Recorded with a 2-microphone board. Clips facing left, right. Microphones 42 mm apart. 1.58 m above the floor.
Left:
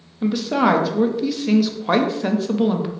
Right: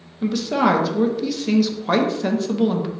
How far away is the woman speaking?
About 0.6 m.